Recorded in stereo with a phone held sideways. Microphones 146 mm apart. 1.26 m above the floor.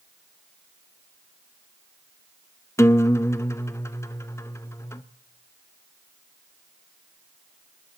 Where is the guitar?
20° left (ahead or behind), 0.6 m.